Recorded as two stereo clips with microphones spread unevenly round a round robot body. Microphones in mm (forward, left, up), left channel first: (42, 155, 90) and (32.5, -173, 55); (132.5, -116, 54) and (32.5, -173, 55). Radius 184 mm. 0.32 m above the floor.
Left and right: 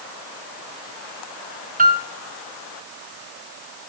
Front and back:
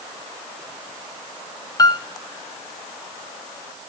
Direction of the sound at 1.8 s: 30° right.